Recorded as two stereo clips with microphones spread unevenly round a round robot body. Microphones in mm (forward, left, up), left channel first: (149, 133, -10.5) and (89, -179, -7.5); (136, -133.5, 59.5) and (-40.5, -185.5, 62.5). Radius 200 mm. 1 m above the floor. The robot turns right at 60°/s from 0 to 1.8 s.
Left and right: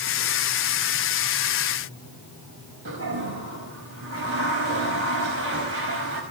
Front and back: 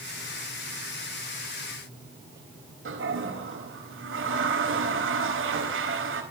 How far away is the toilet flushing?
About 4.5 m.